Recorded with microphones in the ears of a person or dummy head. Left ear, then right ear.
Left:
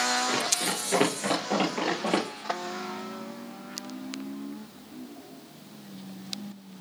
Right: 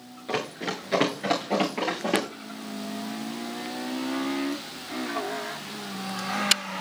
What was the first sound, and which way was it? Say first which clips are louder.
Running footsteps: left 3 dB; 5° right (ahead or behind).